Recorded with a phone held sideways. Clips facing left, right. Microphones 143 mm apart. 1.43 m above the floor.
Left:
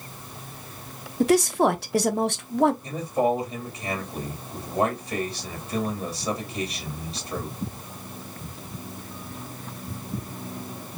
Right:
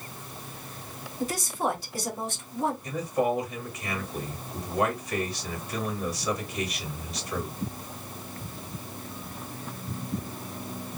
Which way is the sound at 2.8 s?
30° left (ahead or behind).